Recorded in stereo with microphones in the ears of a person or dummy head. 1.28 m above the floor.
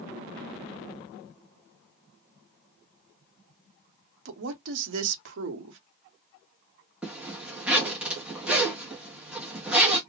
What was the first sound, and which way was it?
A woman speaking, 70° right (ahead or behind).